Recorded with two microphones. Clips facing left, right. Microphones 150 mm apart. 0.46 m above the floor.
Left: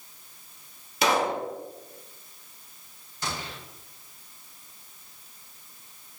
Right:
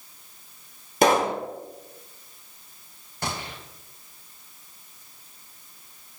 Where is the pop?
45° right (ahead or behind), 1.9 m.